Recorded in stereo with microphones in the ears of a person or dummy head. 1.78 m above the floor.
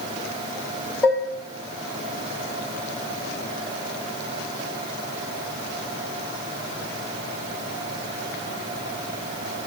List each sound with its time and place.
1.0 s dishes clattering: 10° left (ahead or behind), 3 m